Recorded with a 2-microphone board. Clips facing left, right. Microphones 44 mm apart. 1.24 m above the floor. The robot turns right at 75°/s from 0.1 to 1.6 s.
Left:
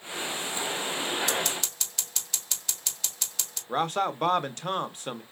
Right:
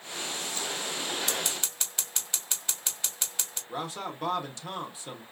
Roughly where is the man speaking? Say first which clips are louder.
Left 9 dB; left.